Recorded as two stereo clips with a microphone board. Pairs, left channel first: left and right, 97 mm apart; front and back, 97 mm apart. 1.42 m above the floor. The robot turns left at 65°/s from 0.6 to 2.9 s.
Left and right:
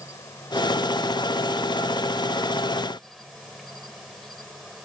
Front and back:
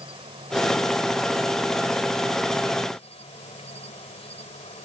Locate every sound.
0.0 s an insect: 150° left; by 4.8 s straight ahead